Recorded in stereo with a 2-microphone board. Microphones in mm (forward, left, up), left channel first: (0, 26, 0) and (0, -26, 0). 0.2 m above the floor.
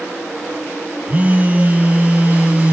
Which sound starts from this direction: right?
A phone buzzing, at 1.1 s.